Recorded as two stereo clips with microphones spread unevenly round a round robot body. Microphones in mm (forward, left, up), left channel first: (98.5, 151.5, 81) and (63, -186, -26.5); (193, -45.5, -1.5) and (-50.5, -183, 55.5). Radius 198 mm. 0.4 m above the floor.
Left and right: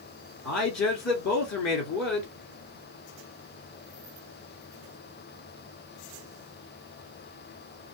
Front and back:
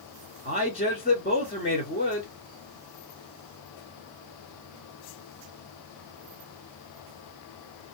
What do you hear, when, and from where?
0.5 s a man speaking: 25° left, 1.5 m